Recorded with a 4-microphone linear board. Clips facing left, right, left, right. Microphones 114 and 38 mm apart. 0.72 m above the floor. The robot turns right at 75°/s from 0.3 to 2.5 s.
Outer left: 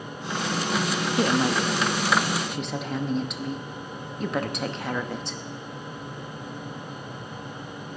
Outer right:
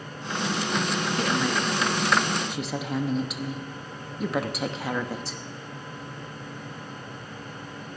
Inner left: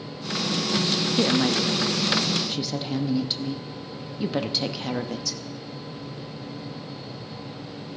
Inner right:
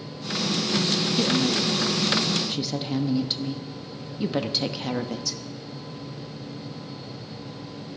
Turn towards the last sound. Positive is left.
turn(degrees=-175)